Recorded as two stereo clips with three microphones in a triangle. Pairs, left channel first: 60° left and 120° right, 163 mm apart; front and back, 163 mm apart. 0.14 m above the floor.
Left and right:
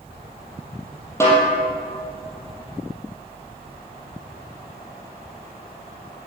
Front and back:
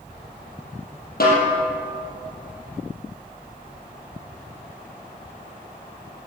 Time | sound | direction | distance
1.2 | a snare drum | 10° right | 4.5 m